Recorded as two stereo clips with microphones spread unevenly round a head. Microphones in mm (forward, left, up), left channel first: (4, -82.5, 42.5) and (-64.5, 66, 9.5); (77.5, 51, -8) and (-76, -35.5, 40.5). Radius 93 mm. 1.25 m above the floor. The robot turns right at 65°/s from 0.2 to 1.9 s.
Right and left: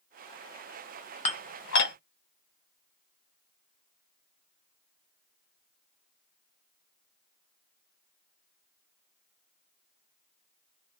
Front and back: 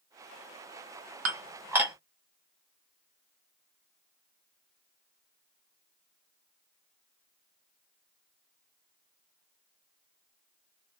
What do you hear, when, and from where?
1.2 s dishes clattering: 110° right, 0.9 m; by 1.9 s 65° right, 0.9 m